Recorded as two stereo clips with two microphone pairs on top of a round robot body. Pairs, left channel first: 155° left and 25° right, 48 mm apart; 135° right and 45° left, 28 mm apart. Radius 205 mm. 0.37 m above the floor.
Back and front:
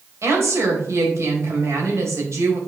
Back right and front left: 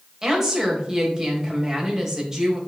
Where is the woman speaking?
20° right, 3 m.